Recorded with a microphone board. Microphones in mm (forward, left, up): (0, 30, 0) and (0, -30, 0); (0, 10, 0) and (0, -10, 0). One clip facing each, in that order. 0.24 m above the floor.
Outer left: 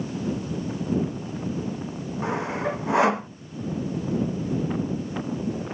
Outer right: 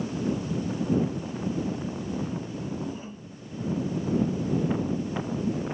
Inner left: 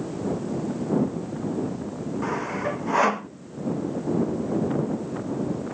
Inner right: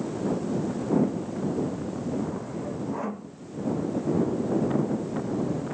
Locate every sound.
2.2 s sawing: 85° left